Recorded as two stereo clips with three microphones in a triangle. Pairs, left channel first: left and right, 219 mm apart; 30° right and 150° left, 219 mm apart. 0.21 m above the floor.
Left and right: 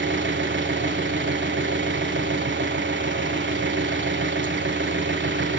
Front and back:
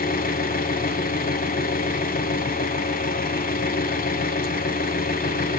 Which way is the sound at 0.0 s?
75° right.